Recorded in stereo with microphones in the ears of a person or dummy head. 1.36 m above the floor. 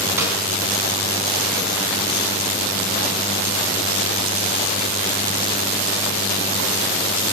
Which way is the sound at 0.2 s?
10° right (ahead or behind).